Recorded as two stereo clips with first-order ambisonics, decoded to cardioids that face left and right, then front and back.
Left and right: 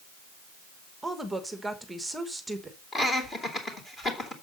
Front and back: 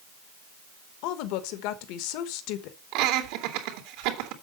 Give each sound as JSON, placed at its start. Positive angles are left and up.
{"t": 1.0, "sound": "a woman speaking", "azimuth_deg": -5, "distance_m": 1.1}
{"t": 2.9, "sound": "laughter", "azimuth_deg": 165, "distance_m": 2.5}